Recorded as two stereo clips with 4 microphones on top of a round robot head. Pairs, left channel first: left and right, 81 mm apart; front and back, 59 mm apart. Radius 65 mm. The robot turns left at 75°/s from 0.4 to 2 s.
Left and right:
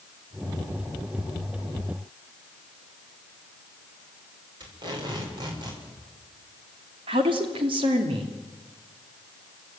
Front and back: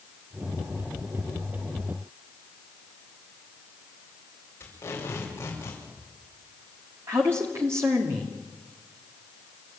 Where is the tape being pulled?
60° right, 6 m.